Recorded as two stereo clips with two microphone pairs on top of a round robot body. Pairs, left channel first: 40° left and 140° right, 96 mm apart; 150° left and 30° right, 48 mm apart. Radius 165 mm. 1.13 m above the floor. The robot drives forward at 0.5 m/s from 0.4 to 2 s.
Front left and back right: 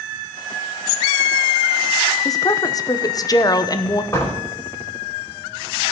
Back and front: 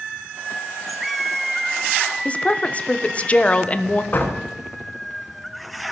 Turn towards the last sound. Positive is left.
turn(degrees=105)